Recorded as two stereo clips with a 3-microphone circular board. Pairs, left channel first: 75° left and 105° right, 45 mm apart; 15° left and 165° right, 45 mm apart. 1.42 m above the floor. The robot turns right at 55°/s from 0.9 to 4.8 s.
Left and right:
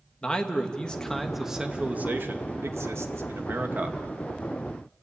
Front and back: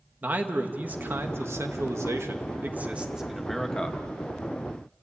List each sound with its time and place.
0.2 s a man speaking: 140° left, 1.8 m; by 4.0 s 50° right, 1.8 m